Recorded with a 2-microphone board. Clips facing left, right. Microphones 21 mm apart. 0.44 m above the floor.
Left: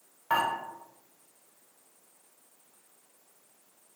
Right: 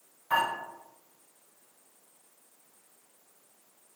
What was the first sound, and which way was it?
Dishes clattering, 40° left (ahead or behind).